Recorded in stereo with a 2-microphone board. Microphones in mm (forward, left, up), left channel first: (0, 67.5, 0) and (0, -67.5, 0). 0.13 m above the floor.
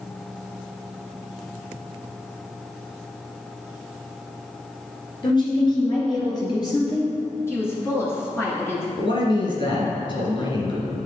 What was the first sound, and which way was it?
A woman speaking, 35° left (ahead or behind).